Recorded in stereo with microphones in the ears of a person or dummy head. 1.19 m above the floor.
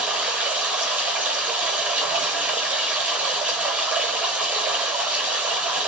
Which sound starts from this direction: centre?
Running water, at 0.0 s.